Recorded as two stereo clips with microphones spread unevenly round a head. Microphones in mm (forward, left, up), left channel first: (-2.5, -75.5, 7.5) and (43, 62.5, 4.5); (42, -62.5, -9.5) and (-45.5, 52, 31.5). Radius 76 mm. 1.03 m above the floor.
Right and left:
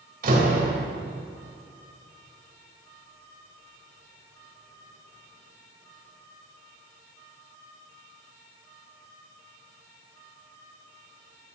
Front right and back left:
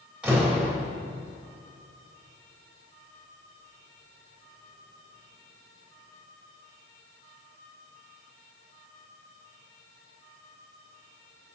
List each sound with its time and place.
0.2 s a door slam: 45° left, 3.5 m